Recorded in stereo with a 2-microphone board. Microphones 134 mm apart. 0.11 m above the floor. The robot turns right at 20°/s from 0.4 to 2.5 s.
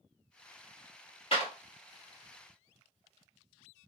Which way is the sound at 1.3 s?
50° left (ahead or behind).